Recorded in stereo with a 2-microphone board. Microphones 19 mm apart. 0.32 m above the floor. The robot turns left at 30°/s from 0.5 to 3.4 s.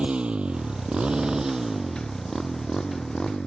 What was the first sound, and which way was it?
A motorcycle, 75° right (ahead or behind).